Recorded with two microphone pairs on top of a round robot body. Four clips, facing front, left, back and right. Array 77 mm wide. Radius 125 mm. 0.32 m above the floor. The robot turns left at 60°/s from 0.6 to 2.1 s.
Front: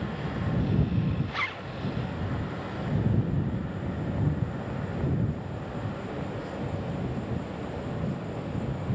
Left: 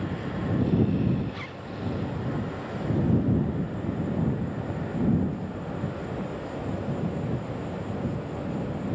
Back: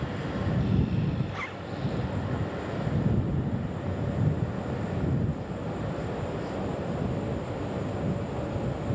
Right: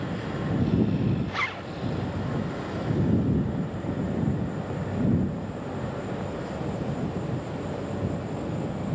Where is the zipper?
55° right; by 1.7 s 80° right.